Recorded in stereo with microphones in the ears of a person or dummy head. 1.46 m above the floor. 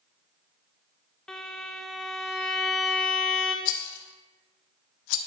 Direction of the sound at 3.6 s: 80° left.